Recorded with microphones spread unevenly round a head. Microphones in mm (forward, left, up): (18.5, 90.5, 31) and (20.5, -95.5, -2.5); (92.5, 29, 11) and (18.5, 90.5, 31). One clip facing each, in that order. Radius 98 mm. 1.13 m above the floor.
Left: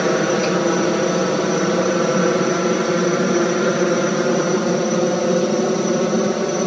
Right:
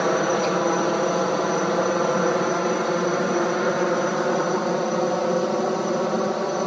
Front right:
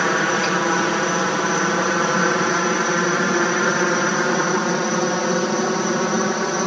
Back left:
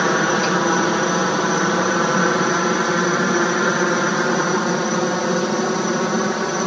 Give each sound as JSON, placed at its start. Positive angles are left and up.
{"t": 0.0, "sound": "a helicopter", "azimuth_deg": 70}